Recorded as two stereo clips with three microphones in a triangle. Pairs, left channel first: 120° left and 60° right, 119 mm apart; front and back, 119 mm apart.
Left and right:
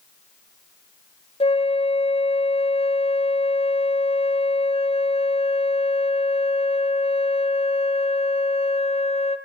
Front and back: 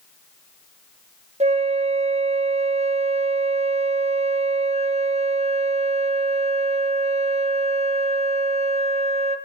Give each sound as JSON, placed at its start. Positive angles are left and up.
{"t": 1.4, "sound": "a flute", "azimuth_deg": 155, "distance_m": 1.4}